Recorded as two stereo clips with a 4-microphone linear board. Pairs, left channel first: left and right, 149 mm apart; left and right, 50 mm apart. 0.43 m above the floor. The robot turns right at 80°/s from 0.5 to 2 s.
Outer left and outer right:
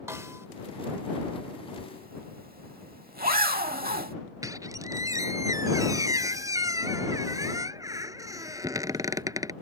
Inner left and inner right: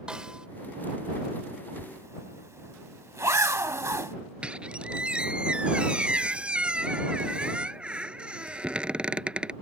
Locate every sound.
0.1 s a snare drum: 20° right (ahead or behind)
1.8 s a zipper: 75° right (ahead or behind); by 4.2 s 85° right
4.4 s a squeak: 25° right (ahead or behind)